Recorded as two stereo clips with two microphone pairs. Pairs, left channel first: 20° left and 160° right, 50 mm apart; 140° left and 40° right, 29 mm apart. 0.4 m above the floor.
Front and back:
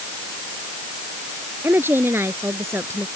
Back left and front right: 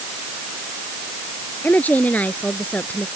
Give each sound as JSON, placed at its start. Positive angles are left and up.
{"t": 1.6, "sound": "a woman speaking", "azimuth_deg": 165}